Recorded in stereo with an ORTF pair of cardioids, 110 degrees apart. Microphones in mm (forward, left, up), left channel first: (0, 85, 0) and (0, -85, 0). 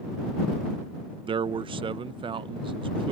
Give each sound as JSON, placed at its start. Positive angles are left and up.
{"t": 1.3, "sound": "a man speaking", "azimuth_deg": -30}